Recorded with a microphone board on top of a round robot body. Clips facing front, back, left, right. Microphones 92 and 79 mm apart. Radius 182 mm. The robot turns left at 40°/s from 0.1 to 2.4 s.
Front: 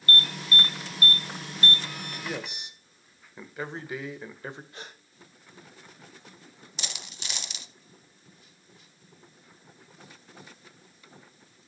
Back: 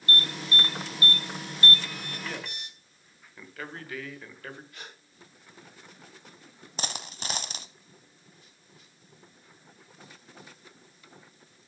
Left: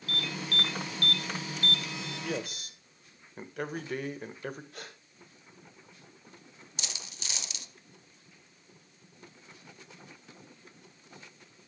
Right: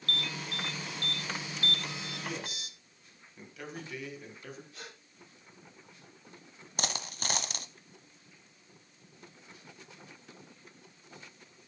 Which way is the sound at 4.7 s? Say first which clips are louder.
Front 2 dB, left 2 dB; 65° left.